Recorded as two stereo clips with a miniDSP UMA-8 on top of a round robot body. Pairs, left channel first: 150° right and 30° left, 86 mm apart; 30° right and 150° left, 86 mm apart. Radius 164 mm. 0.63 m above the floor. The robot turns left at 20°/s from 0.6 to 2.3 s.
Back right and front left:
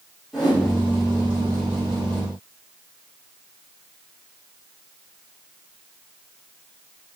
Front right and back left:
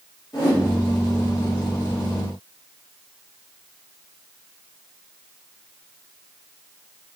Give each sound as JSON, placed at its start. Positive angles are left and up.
{"t": 0.3, "sound": "a whoosh", "azimuth_deg": -55, "distance_m": 1.9}